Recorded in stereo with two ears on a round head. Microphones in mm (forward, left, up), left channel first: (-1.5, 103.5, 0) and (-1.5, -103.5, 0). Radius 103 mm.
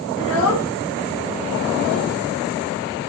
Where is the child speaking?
55° left (ahead or behind), 1.5 m; by 2.1 s 80° left, 3 m.